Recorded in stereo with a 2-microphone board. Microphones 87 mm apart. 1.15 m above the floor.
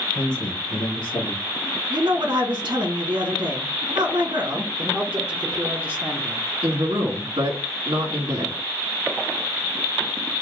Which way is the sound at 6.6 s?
80° right.